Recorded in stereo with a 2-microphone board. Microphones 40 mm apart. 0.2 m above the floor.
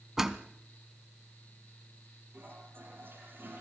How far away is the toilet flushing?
About 5.5 m.